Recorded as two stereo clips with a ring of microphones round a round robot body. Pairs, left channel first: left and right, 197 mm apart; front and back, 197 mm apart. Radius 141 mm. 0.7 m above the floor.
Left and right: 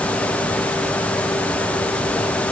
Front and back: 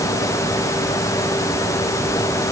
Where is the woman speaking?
I don't hear a woman speaking.